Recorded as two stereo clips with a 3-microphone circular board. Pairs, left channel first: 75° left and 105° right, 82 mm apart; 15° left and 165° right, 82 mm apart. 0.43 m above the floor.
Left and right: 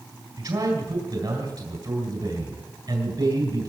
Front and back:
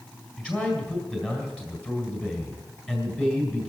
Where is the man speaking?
80° right, 3.5 m.